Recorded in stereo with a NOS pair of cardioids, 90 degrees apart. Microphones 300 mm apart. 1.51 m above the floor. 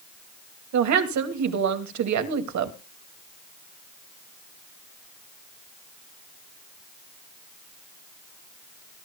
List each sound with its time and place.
0.7 s a woman speaking: 70° right, 2.5 m